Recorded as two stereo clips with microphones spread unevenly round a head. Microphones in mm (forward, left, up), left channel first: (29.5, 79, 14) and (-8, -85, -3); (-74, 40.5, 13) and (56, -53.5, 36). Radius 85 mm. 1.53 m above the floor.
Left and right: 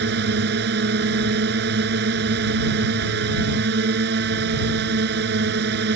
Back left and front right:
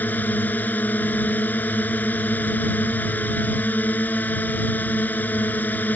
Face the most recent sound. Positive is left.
turn(degrees=-135)